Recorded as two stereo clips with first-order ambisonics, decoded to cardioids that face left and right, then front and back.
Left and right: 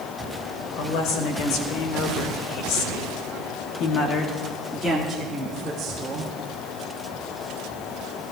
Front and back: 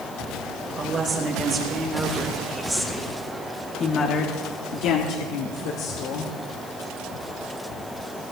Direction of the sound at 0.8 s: 115° left.